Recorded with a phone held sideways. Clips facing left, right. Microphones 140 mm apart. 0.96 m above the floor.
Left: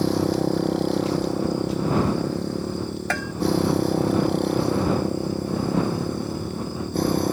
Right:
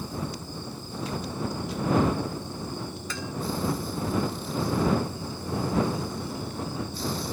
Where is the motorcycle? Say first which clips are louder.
Left 14 dB; 85° left; by 7.3 s 60° left (ahead or behind).